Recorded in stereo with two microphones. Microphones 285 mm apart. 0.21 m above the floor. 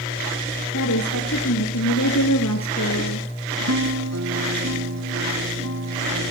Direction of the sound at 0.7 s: 70° left (ahead or behind).